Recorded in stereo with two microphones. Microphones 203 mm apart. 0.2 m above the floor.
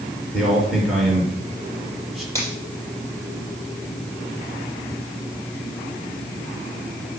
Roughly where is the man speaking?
Centre.